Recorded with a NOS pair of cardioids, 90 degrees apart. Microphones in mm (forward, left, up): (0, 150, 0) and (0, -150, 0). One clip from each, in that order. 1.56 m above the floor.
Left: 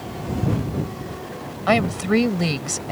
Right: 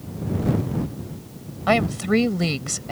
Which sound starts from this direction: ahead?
A woman speaking, at 1.7 s.